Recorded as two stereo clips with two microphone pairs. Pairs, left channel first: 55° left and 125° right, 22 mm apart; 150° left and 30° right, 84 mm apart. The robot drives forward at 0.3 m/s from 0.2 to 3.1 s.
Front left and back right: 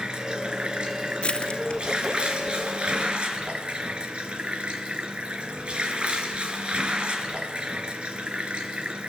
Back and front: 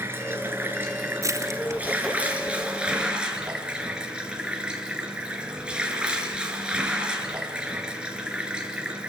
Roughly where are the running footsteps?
I don't hear running footsteps.